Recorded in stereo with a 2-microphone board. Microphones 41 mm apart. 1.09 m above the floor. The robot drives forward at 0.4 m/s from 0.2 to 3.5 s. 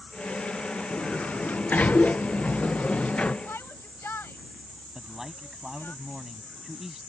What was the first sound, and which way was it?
A sliding door, 40° left (ahead or behind).